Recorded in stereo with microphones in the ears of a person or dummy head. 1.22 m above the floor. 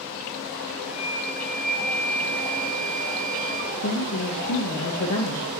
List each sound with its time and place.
0.8 s a flute: 40° left (ahead or behind), 1.3 m
3.8 s a woman speaking: 85° left, 0.9 m